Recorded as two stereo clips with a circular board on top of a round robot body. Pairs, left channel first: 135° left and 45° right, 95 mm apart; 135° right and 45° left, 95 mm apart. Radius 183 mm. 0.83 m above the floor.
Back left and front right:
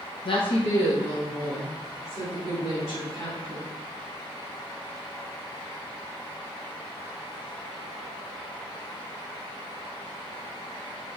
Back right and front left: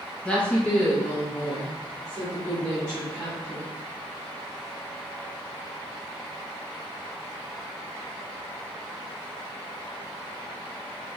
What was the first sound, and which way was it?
A woman speaking, 145° left.